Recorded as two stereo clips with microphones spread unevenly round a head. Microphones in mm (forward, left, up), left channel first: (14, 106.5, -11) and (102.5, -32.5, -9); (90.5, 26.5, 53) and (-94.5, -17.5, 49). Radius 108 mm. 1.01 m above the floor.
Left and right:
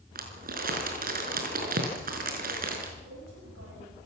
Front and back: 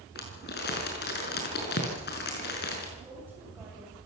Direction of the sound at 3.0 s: 85° right.